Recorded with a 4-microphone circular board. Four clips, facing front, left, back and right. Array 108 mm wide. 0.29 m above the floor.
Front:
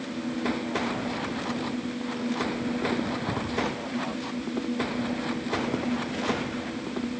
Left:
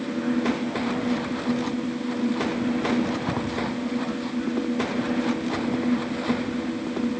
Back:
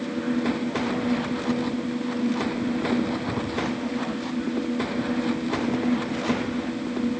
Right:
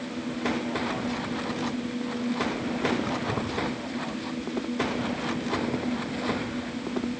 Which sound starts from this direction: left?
Keys jangling, at 3.0 s.